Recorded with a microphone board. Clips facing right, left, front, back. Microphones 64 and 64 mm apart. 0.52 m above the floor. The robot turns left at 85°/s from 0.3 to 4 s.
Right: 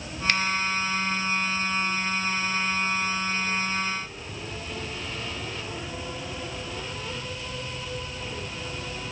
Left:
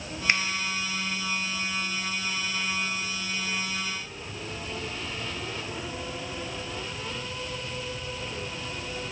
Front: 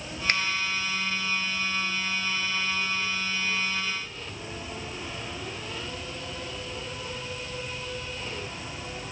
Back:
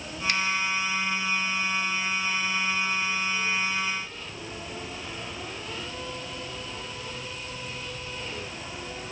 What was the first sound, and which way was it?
A finger snap, 25° left.